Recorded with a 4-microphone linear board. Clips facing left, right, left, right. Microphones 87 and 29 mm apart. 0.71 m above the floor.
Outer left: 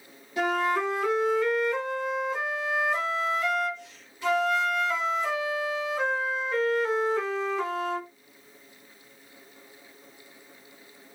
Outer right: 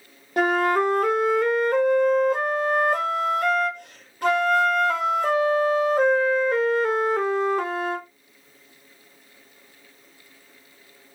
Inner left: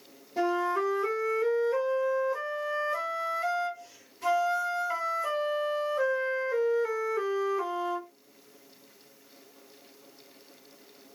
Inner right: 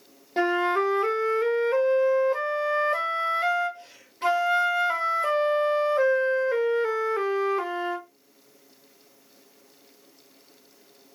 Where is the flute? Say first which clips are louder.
Outer right 5 dB, inner right 4 dB; 55° right (ahead or behind), 0.8 m.